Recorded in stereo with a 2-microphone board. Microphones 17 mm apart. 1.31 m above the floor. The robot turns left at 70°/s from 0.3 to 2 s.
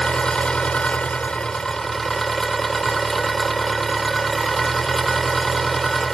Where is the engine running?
130° left; by 6.1 s 15° left.